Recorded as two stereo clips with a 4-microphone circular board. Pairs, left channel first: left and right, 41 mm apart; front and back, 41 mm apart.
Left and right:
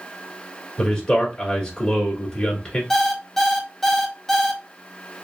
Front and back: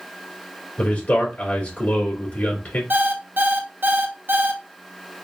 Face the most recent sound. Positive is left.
turn(degrees=170)